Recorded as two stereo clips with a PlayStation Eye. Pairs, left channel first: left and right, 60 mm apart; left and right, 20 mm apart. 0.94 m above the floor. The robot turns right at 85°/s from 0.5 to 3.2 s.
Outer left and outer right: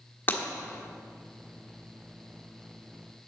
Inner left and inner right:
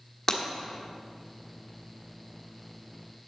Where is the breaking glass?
30° left (ahead or behind), 1.3 m.